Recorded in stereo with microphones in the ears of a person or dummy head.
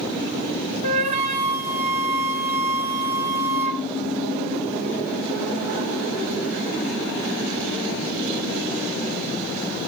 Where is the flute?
40° right (ahead or behind), 1.0 m.